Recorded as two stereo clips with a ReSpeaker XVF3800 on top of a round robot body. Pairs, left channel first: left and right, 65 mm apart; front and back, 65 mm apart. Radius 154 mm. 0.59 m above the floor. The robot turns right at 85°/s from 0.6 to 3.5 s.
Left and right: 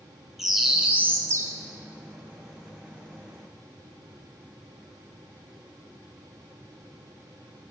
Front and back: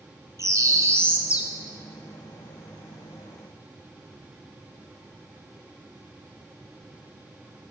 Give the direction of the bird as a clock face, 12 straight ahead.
6 o'clock.